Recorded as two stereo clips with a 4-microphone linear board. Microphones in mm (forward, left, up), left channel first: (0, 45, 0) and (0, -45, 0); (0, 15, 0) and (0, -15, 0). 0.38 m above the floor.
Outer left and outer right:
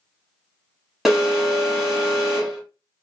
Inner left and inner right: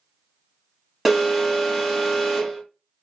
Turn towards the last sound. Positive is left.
turn(degrees=-5)  # may be behind; listen again after turning